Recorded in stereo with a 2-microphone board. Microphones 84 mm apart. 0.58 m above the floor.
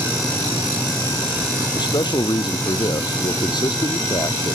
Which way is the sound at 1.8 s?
65° left (ahead or behind).